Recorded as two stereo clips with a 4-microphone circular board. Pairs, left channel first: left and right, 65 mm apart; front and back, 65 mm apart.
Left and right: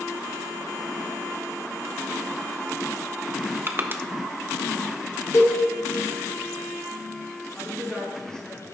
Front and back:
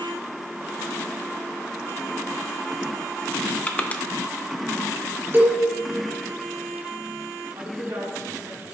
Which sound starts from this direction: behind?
A woman speaking, at 7.5 s.